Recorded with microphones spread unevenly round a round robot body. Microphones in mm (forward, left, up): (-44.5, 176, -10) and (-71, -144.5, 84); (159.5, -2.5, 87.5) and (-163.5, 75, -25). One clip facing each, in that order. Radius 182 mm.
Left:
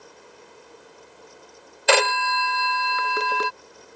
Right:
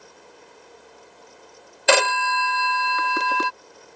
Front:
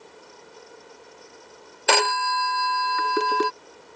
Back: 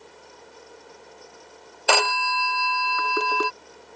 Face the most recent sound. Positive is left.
turn(degrees=-85)